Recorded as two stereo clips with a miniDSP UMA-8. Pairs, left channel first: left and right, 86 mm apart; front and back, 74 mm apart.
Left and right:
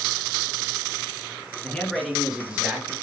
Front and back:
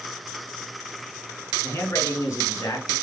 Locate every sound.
1.6 s a man speaking: 25° left, 2 m; by 2.9 s 25° right, 2.5 m